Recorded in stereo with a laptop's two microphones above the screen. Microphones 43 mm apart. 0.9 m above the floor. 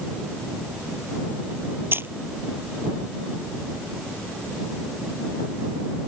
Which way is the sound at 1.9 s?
60° right (ahead or behind).